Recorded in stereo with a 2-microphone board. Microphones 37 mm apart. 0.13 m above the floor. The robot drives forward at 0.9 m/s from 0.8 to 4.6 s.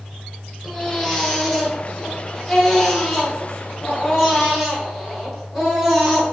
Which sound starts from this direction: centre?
A baby crying, at 0.6 s.